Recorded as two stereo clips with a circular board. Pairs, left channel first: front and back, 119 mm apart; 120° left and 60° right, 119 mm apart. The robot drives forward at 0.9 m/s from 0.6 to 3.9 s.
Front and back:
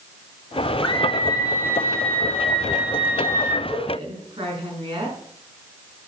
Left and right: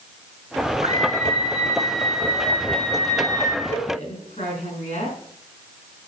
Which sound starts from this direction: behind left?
A woman speaking, at 3.7 s.